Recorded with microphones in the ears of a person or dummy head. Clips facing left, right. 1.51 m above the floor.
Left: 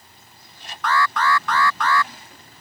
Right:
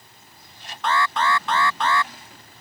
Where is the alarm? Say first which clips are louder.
Left 1 dB; 20° right (ahead or behind).